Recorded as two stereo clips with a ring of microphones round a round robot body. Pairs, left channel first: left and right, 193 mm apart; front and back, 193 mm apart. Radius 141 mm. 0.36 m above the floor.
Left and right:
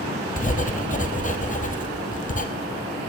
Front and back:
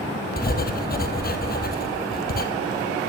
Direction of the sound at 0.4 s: 40° left.